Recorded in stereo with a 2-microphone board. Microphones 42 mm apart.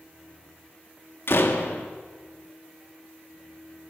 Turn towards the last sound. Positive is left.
turn(degrees=70)  # may be behind; listen again after turning